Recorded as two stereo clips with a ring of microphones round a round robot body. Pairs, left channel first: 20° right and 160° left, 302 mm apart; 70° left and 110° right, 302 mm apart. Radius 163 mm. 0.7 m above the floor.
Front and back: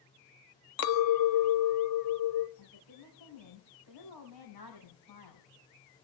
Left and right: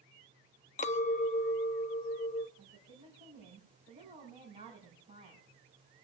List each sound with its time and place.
0.8 s a clink: 5° left, 0.7 m
2.6 s a woman speaking: 40° right, 4.5 m